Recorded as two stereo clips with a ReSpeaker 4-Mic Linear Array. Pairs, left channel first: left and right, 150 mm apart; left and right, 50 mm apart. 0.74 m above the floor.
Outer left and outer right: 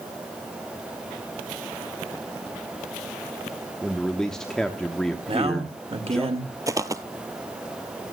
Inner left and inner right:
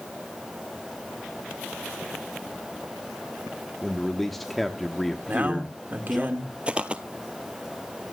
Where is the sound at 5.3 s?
40° right (ahead or behind), 2 m.